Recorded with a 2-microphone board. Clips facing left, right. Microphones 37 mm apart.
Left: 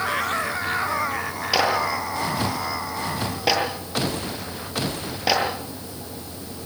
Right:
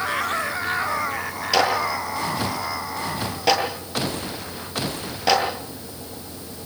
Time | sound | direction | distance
1.5 | a clap | 10° left (ahead or behind) | 9.5 m